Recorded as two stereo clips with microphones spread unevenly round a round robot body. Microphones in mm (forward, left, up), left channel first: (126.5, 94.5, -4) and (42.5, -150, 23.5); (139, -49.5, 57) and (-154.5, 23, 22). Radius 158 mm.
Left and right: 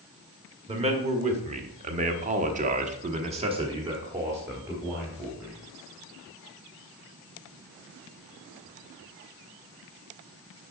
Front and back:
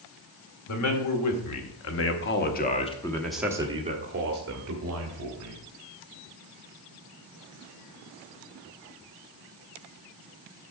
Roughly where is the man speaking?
Ahead right.